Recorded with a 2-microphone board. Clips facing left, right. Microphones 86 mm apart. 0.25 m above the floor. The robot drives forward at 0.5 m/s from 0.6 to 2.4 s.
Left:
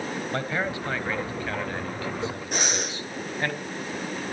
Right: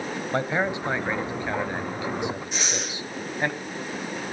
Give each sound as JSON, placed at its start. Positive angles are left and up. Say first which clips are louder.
{"t": 0.3, "sound": "a man speaking", "louder": "right 5 dB", "side_deg": -20, "distance_m": 1.6}
{"t": 2.5, "sound": "breathing", "louder": "left 2 dB", "side_deg": 55, "distance_m": 6.5}